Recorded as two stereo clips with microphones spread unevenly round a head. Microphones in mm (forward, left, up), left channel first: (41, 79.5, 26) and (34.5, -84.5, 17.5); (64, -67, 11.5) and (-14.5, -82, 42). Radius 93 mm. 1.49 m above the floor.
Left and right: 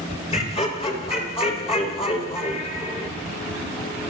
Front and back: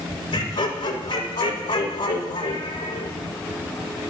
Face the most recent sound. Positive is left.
turn(degrees=35)